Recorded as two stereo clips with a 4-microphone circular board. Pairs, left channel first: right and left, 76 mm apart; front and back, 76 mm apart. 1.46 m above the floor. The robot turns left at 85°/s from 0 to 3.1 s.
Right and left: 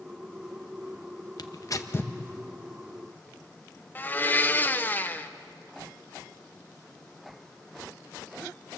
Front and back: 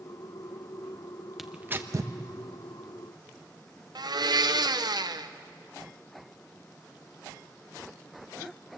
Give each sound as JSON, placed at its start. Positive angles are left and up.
{"t": 1.4, "sound": "tearing paper", "azimuth_deg": -95, "distance_m": 1.0}
{"t": 4.0, "sound": "a blender", "azimuth_deg": -155, "distance_m": 0.8}